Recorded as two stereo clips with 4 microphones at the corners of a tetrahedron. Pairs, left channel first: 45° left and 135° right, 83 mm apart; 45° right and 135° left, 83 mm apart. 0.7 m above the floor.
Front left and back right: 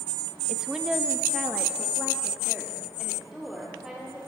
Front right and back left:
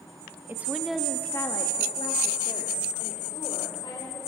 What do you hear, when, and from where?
0.5 s a woman speaking: 150° left, 0.7 m; by 4.2 s 50° right, 2.5 m